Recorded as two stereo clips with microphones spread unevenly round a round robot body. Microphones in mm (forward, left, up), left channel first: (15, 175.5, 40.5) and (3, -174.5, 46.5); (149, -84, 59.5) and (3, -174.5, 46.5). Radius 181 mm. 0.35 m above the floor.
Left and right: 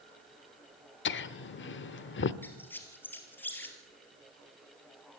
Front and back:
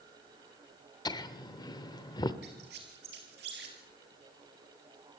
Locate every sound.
1.1 s laughter: 85° left, 0.9 m
2.4 s a squeak: 175° left, 2 m